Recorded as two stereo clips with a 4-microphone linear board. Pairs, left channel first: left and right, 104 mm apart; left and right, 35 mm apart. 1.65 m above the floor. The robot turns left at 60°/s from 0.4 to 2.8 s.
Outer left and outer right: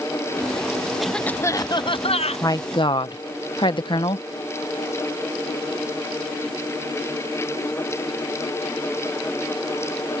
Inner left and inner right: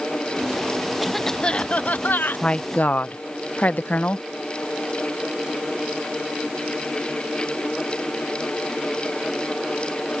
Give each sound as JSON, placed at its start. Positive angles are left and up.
{"t": 1.0, "sound": "a cough", "azimuth_deg": 180}
{"t": 2.4, "sound": "a woman speaking", "side_deg": 30}